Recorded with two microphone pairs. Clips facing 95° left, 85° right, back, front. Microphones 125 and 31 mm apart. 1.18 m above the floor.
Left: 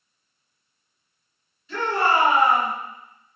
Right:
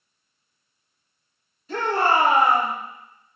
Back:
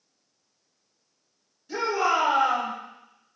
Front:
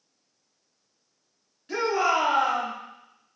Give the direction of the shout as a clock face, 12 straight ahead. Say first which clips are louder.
Right 1 dB, front 1 dB; 1 o'clock.